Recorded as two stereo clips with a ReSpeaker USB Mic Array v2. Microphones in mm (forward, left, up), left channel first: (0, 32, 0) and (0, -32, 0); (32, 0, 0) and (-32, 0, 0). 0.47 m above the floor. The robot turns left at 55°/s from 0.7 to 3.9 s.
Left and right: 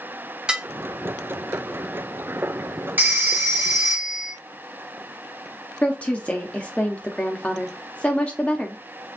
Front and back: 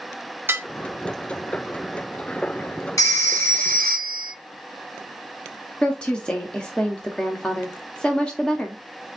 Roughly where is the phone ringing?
Ahead right.